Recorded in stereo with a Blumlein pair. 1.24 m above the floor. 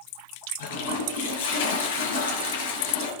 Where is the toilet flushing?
60° left, 4 m.